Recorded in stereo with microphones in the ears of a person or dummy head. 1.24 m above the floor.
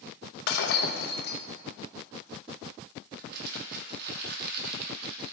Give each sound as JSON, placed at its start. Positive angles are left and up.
{"t": 0.5, "sound": "breaking glass", "side_deg": 55, "distance_m": 0.7}
{"t": 3.2, "sound": "crumpling", "side_deg": -50, "distance_m": 1.2}